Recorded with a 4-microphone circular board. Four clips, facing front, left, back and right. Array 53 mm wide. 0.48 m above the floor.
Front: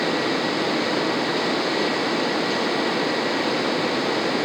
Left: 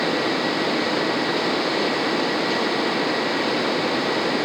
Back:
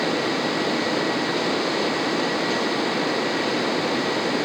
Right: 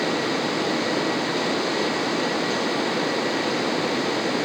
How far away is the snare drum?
I don't hear a snare drum.